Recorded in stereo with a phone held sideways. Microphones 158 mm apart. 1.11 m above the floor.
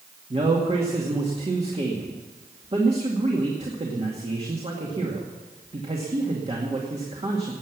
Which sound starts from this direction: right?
A man speaking, at 0.3 s.